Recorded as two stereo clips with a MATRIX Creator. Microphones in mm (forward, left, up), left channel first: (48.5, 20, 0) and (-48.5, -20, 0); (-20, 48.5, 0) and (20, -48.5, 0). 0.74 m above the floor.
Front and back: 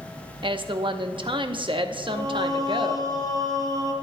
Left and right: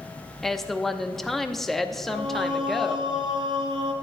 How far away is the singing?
About 2.5 m.